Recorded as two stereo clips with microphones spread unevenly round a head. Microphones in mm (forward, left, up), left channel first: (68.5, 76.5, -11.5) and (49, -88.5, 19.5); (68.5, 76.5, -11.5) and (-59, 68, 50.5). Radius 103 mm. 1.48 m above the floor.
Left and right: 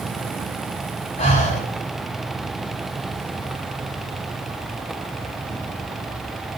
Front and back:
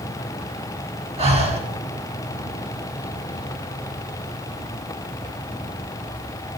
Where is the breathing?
150° left, 3.5 m.